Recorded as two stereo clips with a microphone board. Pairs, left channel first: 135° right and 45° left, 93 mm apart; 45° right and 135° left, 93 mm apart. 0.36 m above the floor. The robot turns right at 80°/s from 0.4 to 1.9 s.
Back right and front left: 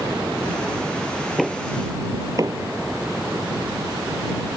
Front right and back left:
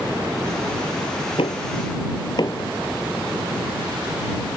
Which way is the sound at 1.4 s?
45° right.